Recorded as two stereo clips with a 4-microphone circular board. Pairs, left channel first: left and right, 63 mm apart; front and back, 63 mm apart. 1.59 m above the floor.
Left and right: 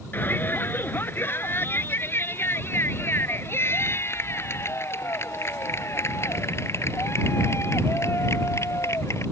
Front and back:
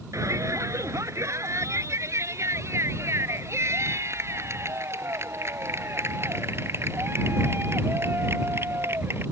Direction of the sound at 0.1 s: 145° left.